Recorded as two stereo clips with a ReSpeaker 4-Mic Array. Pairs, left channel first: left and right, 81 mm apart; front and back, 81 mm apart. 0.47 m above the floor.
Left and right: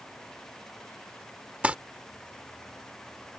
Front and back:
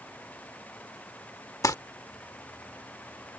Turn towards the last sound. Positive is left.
turn(degrees=-20)